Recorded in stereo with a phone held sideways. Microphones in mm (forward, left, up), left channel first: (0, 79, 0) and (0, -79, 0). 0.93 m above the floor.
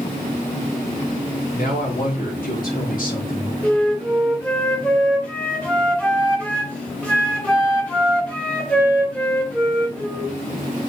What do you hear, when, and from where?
1.6 s a man speaking: 65° left (ahead or behind), 4.5 m; by 3.5 s 60° left (ahead or behind), 3.5 m
3.6 s a flute: 10° left (ahead or behind), 2.5 m